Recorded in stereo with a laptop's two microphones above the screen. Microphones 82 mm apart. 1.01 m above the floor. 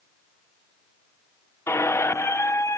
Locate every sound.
1.7 s a squeak: 35° left (ahead or behind), 0.5 m